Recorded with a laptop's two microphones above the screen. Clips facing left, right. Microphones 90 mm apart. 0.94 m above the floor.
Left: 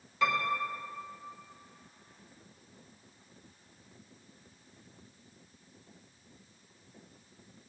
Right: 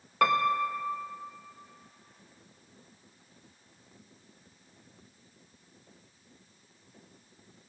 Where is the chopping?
I don't hear chopping.